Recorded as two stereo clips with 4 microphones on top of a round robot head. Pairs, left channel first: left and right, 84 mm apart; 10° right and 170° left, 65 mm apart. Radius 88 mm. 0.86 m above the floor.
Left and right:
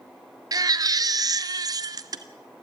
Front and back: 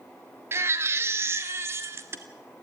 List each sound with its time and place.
0.5 s a baby crying: 135° right, 1.1 m